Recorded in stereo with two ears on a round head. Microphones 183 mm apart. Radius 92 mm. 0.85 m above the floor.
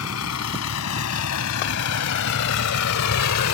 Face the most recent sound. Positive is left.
turn(degrees=85)